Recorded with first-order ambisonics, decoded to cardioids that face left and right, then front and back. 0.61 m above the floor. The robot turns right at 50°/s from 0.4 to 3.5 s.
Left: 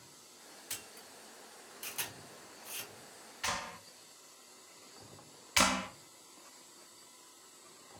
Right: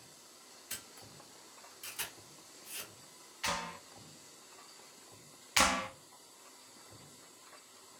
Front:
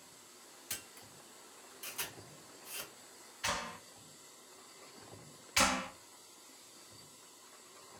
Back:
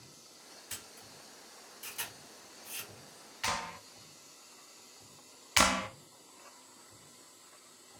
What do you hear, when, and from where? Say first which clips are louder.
0.7 s a camera shutter: left 1 dB, front 1 dB; 40° left, 2 m; by 2.9 s 150° left, 2 m
3.4 s a clap: right 1 dB, back 2 dB; straight behind, 1.2 m; by 3.8 s 175° right, 1.2 m
5.6 s a clap: even, back 4 dB; straight behind, 0.5 m